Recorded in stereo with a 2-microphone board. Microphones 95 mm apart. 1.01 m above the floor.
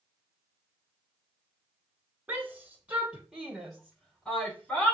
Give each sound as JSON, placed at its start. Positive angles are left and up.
{"t": 2.3, "sound": "a shout", "side_deg": -20, "distance_m": 3.5}